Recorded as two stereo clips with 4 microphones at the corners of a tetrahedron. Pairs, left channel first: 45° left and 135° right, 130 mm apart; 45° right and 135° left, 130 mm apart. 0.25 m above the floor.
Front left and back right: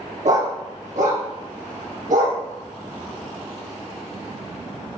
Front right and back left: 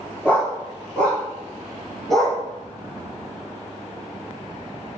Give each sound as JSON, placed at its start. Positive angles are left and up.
{"t": 0.2, "sound": "a dog barking", "azimuth_deg": -125, "distance_m": 4.0}